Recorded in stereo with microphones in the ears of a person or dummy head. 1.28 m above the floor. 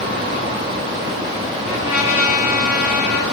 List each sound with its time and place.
1.6 s a trumpet: 5° right (ahead or behind), 5 m